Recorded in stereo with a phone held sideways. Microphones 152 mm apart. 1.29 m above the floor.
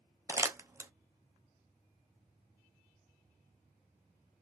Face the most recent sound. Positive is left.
turn(degrees=-15)  # may be behind; listen again after turning